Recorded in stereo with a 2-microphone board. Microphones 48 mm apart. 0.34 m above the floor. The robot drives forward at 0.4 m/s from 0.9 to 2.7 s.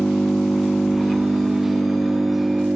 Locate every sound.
0.0 s an engine running: 5° left (ahead or behind), 0.9 m